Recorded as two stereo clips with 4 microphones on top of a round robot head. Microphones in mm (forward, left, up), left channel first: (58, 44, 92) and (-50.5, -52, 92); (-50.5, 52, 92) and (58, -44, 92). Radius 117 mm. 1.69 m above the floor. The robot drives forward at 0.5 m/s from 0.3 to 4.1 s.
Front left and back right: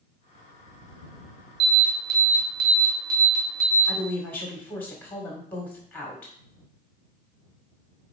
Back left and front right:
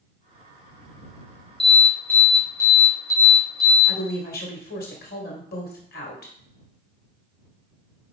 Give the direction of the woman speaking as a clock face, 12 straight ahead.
8 o'clock.